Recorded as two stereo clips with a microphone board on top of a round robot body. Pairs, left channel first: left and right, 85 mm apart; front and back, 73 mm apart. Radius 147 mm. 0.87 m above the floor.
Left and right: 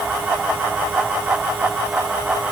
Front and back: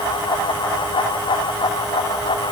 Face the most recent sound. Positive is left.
No sound to turn to.